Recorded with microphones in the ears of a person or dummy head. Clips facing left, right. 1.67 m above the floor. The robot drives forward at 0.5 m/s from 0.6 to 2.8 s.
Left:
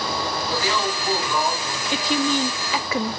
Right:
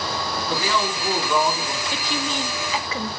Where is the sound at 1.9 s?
60° left (ahead or behind), 0.6 m; by 3.1 s 55° left (ahead or behind), 0.6 m.